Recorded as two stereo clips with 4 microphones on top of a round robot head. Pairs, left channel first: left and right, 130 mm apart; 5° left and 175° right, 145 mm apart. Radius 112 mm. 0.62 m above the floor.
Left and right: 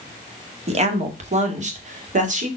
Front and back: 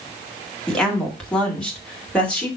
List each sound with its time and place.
0.7 s a woman speaking: 85° right, 1.8 m; by 2.5 s 80° right, 2.5 m